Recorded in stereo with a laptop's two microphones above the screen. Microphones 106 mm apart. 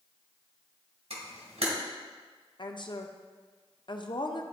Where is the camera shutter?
85° right, 2.5 m.